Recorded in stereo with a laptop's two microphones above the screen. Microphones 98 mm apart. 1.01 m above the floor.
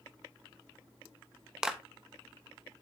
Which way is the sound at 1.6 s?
5° right (ahead or behind).